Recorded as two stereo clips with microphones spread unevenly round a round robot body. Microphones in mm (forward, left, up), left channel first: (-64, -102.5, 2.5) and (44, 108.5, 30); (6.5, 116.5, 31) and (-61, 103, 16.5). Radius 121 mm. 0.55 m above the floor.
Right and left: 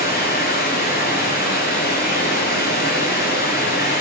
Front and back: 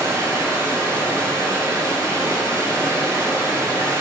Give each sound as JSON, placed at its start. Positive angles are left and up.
{"t": 0.0, "sound": "running water", "azimuth_deg": -65, "distance_m": 6.0}